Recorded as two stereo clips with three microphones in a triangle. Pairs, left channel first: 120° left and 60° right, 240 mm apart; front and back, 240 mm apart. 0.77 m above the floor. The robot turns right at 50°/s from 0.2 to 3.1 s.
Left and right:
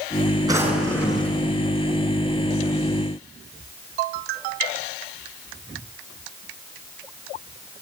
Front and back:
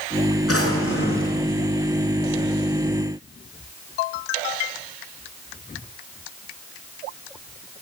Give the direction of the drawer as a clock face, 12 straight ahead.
12 o'clock.